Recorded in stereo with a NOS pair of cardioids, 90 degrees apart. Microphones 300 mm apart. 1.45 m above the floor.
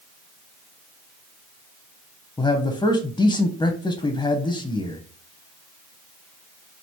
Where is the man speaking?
15° left, 0.5 m.